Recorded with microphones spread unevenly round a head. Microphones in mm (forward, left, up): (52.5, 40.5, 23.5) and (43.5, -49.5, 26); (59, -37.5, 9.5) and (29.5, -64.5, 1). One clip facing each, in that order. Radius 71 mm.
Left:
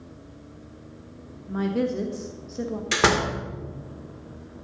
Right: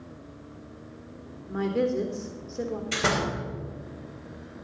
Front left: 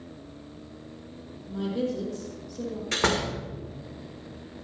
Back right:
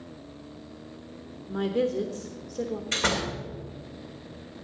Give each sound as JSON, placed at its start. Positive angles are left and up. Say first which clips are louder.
{"t": 1.5, "sound": "a woman speaking", "louder": "even, back right 3 dB", "azimuth_deg": 170, "distance_m": 1.0}
{"t": 2.9, "sound": "a door slam", "louder": "left 6 dB, front left 2 dB", "azimuth_deg": 100, "distance_m": 2.0}